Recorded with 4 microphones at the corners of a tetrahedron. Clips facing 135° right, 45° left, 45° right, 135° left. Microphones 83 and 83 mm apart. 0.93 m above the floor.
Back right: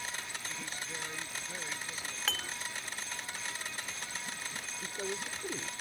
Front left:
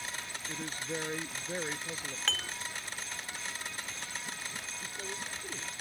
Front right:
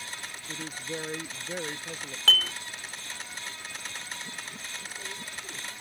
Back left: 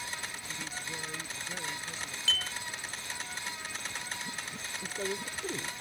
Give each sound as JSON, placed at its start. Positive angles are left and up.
{"t": 0.5, "sound": "a woman speaking", "azimuth_deg": -5}
{"t": 2.3, "sound": "dishes clattering", "azimuth_deg": -50}
{"t": 4.8, "sound": "a woman speaking", "azimuth_deg": 165}